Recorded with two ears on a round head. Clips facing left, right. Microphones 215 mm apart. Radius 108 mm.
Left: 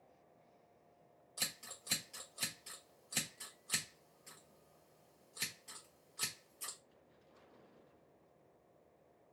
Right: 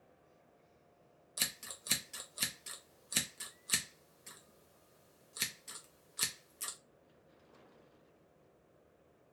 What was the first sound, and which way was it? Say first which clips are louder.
Scissors: right 2 dB; 25° right (ahead or behind).